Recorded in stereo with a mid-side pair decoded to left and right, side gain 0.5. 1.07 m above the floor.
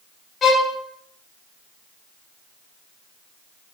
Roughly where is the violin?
Ahead left.